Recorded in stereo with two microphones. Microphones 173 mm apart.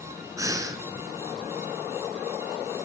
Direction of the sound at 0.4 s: 15° right (ahead or behind).